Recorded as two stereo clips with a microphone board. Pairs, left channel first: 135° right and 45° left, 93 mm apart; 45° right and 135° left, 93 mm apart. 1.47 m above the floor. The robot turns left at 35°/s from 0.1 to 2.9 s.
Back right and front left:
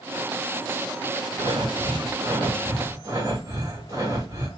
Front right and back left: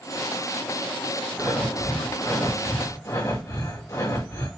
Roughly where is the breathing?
Ahead left.